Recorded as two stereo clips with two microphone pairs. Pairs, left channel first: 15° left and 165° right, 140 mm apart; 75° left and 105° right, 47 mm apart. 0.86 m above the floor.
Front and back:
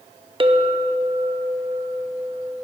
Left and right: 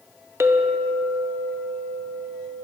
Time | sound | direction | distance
0.4 | a clink | 115° right | 0.6 m